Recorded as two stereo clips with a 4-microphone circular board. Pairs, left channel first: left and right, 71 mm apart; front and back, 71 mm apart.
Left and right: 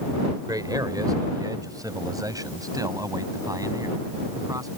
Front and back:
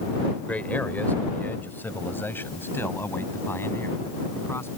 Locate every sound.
0.5 s a man speaking: 70° right; by 4.7 s 55° right